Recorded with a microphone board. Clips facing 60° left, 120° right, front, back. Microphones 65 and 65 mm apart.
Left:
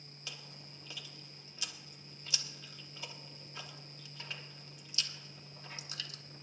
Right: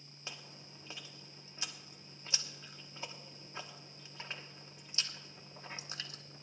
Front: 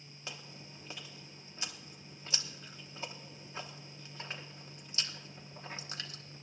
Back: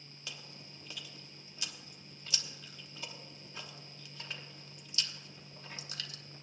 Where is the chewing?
60° right, 1.0 m.